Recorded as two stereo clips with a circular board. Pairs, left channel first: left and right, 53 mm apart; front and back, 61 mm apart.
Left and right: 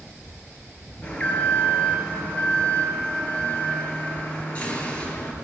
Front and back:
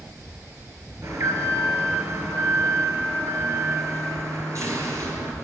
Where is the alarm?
155° left, 5 m.